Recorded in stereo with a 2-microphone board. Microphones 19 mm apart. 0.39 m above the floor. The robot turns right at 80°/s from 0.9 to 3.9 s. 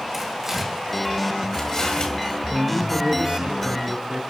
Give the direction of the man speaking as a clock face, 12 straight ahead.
6 o'clock.